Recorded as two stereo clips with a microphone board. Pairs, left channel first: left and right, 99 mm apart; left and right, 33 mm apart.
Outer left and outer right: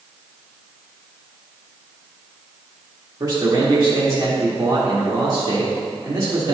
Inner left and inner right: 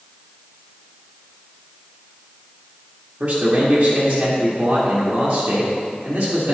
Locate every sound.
3.2 s a man speaking: 40° right (ahead or behind), 1.6 m